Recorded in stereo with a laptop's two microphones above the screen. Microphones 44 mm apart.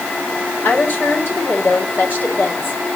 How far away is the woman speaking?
About 4.5 m.